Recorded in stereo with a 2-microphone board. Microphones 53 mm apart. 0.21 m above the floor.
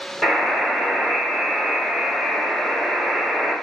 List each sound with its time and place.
0.2 s a buzzer: 5° left (ahead or behind), 1.2 m